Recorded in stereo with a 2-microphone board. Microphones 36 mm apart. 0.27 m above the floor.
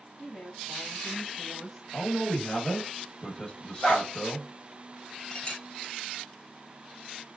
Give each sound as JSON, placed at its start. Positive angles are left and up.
{"t": 0.2, "sound": "a woman speaking", "side_deg": 15, "distance_m": 1.7}
{"t": 1.9, "sound": "a man speaking", "side_deg": 20, "distance_m": 1.0}
{"t": 3.8, "sound": "a dog barking", "side_deg": 30, "distance_m": 1.6}
{"t": 5.3, "sound": "a clink", "side_deg": 25, "distance_m": 0.6}